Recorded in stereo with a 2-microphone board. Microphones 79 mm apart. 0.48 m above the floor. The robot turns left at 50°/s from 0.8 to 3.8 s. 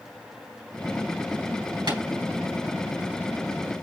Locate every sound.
1.9 s tapping: 75° right (ahead or behind), 4 m; by 2.0 s 70° right (ahead or behind), 4 m